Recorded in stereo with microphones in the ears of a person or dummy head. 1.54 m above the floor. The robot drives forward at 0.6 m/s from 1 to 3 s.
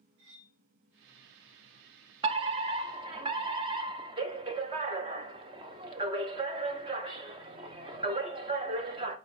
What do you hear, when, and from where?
0.2 s cutlery clinking: 75° right (ahead or behind), 3.5 m
2.2 s a fire alarm: 30° right (ahead or behind), 0.7 m; by 9.2 s 25° right (ahead or behind), 0.8 m